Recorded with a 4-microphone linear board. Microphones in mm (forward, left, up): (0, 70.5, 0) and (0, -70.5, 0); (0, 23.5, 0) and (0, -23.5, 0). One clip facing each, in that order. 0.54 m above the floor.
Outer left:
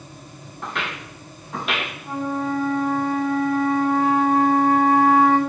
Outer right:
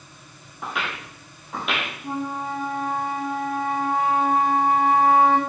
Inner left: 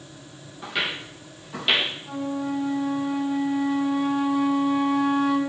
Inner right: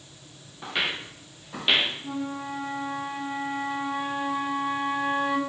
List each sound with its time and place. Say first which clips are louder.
0.6 s footsteps: even, inner left 1 dB; 5° right (ahead or behind), 3 m; by 1.9 s centre (ahead or behind), 4 m
2.0 s a flute: outer left 5 dB, inner left 4 dB; 15° right (ahead or behind), 3.5 m